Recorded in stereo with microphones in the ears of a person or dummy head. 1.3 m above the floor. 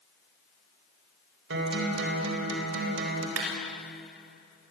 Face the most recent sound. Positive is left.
turn(degrees=-80)